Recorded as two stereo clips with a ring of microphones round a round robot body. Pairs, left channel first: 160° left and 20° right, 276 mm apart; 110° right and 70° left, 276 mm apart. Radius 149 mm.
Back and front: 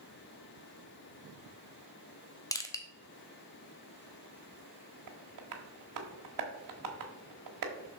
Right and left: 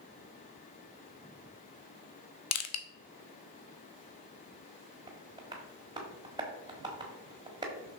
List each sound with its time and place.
2.5 s crushing: 125° right, 0.9 m
5.1 s tapping: 10° right, 1.3 m